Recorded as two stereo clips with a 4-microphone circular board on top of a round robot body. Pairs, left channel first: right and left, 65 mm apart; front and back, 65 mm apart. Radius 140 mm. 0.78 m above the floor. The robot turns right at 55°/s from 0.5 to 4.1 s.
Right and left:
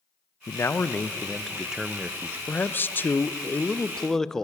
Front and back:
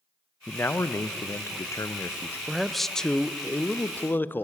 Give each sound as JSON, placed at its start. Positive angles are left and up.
{"t": 0.5, "sound": "a man speaking", "azimuth_deg": -55, "distance_m": 0.6}
{"t": 2.5, "sound": "a man speaking", "azimuth_deg": -105, "distance_m": 0.6}